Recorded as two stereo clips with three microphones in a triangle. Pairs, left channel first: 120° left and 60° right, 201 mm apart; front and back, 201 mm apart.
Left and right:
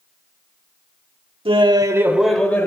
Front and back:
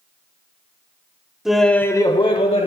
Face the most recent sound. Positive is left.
turn(degrees=45)